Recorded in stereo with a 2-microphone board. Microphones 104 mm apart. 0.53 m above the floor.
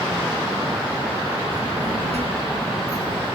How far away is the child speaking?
About 5.5 m.